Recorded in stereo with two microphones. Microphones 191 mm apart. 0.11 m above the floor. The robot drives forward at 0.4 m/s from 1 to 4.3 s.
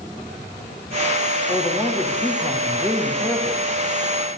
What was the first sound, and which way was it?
A man speaking, 5° left (ahead or behind).